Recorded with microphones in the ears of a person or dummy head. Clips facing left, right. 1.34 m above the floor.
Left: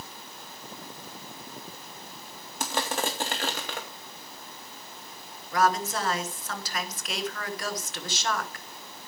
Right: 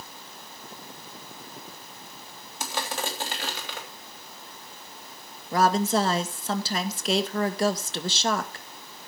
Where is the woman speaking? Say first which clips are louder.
Right 4 dB; 25° right (ahead or behind), 1.0 m.